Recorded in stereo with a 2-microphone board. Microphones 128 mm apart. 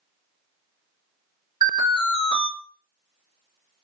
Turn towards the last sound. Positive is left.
turn(degrees=-40)  # may be behind; listen again after turning